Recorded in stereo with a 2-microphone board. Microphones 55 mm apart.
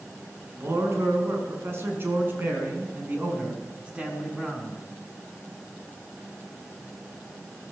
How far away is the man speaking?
About 7 m.